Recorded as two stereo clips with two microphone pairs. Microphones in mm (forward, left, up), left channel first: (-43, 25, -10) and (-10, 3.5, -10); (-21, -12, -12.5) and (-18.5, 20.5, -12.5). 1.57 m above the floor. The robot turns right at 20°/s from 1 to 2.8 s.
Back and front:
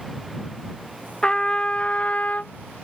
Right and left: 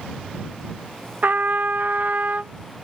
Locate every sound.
1.2 s a trumpet: 80° left; by 2.5 s 105° left